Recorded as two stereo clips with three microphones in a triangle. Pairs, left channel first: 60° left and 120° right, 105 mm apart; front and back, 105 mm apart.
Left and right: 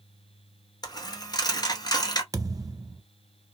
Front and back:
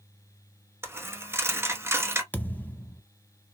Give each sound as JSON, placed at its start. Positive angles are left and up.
{"t": 0.8, "sound": "a dropped coin", "azimuth_deg": 110, "distance_m": 0.9}
{"t": 2.3, "sound": "a thud", "azimuth_deg": -70, "distance_m": 0.6}